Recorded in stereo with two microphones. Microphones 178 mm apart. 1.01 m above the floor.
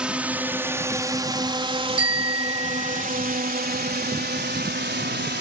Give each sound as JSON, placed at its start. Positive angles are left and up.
{"t": 0.0, "sound": "a drone", "side_deg": -5}
{"t": 2.0, "sound": "a bicycle bell", "side_deg": 45}